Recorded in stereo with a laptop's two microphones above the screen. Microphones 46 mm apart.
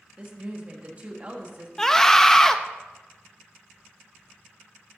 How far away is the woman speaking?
About 1.1 m.